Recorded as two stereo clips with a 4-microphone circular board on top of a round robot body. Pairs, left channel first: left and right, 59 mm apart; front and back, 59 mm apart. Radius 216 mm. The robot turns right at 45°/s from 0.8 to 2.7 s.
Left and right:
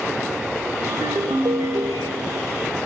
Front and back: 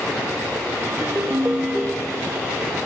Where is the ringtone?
135° right, 2.5 m; by 2.6 s 60° right, 2.5 m.